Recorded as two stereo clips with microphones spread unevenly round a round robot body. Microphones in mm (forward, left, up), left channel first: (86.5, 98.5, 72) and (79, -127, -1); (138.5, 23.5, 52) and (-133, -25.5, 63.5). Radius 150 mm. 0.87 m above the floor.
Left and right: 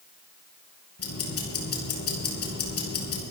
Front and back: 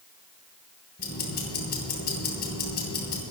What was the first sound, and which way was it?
Ticking, 65° left.